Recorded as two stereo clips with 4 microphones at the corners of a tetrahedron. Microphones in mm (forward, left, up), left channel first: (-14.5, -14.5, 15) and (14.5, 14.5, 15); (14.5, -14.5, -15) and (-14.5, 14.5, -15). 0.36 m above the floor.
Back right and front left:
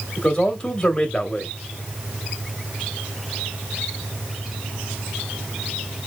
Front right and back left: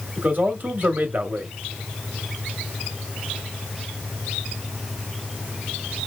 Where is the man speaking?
160° left, 1.4 m.